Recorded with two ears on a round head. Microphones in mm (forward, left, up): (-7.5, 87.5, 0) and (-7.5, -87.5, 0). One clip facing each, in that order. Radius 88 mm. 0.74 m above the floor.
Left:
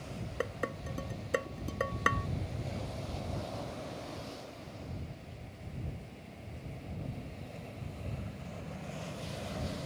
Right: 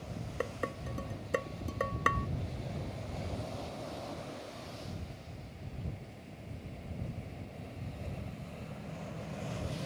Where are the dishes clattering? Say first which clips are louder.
Left 1 dB; 5° left (ahead or behind).